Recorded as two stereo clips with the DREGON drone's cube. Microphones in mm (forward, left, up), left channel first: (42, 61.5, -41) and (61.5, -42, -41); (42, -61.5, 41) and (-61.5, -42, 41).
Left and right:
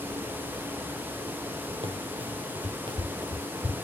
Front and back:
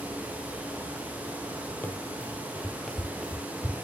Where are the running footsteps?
80° right, 2.5 m; by 3.9 s 115° right, 1.6 m.